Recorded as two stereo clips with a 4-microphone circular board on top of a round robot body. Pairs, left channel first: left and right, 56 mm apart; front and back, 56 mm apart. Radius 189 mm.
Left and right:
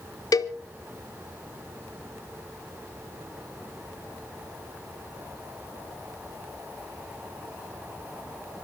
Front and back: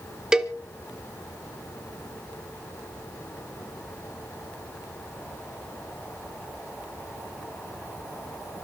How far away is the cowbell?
About 0.6 m.